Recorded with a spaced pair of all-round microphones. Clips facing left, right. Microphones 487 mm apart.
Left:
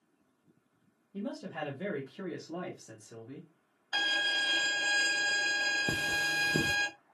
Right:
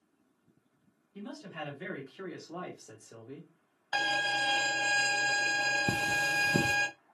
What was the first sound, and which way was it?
A man speaking, 75° left (ahead or behind).